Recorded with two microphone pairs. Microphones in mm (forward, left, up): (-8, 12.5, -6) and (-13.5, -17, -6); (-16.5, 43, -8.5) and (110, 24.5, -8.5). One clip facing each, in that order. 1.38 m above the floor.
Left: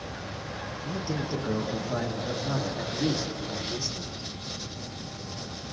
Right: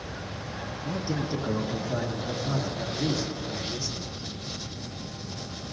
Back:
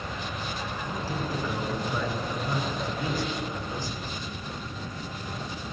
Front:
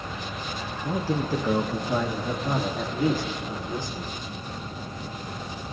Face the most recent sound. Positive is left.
turn(degrees=30)